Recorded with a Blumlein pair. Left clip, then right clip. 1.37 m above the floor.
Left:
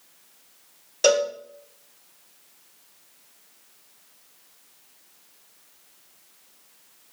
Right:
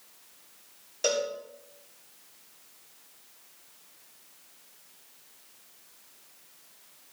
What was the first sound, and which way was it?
A cowbell, 25° left.